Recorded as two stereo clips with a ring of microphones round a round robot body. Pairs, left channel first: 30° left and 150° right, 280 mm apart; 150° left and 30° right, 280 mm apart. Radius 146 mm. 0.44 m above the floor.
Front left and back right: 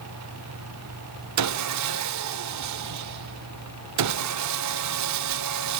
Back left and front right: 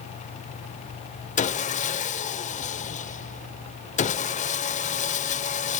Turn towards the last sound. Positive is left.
turn(degrees=-150)